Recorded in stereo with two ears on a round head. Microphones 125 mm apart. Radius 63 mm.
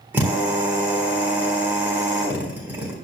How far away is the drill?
About 4 m.